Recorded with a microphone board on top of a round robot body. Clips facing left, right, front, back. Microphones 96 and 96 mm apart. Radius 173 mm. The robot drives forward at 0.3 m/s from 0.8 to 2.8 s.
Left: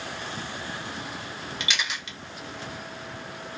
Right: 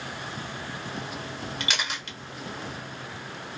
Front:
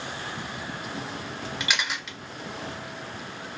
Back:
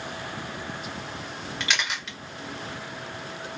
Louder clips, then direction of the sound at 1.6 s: Left 1 dB, back 1 dB; 80° right.